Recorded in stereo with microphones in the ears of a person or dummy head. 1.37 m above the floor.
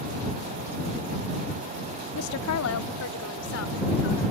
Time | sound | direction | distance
2.1 | a woman speaking | 85° left | ?